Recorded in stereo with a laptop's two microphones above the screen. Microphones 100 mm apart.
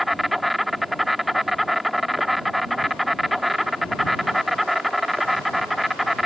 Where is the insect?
Centre (ahead or behind).